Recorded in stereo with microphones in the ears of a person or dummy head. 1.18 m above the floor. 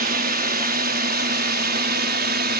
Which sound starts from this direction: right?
A drone, at 0.0 s.